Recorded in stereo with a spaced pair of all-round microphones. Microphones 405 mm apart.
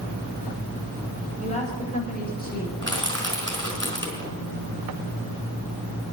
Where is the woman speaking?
15° left (ahead or behind), 6.5 m; by 2.7 s 25° left (ahead or behind), 6.5 m.